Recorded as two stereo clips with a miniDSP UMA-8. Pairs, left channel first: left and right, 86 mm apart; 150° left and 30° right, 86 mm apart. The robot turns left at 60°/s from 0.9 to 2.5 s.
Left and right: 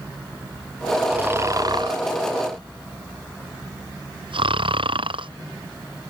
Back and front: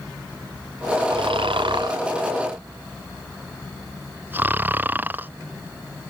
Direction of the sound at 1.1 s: 15° right.